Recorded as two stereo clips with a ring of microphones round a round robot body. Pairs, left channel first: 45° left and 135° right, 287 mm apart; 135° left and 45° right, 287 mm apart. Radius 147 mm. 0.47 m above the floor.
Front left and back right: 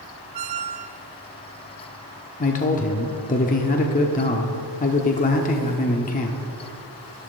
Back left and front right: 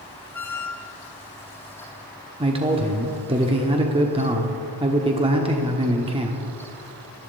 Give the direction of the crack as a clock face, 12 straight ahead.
I don't hear a crack.